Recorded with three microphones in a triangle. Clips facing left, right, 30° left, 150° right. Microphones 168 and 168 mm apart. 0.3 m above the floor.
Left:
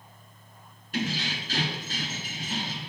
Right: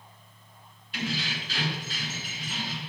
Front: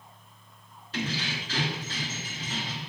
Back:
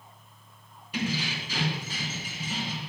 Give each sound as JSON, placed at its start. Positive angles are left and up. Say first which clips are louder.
{"t": 0.9, "sound": "keys jangling", "louder": "left 2 dB, back 2 dB", "azimuth_deg": 135, "distance_m": 2.5}